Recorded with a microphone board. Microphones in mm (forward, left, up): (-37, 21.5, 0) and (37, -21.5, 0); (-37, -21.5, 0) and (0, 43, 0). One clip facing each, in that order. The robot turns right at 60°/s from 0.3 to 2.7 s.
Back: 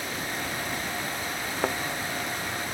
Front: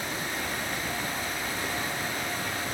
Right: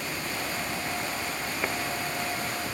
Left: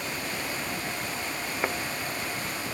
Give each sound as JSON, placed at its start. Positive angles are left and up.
{"t": 1.6, "sound": "a thud", "azimuth_deg": 135}